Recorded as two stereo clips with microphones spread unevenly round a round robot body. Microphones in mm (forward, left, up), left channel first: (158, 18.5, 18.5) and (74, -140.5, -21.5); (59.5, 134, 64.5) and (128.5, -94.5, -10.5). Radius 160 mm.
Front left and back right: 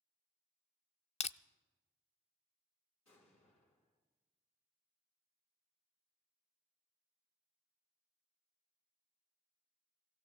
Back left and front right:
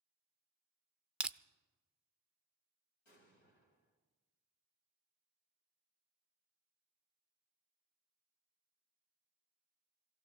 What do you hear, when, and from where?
1.2 s crushing: straight ahead, 0.6 m
3.0 s an explosion: 110° left, 3.5 m